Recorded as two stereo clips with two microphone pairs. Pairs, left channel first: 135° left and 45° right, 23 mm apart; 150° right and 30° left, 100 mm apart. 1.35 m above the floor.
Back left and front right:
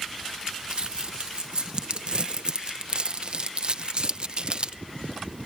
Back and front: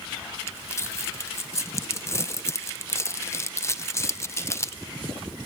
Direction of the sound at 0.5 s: 90° right.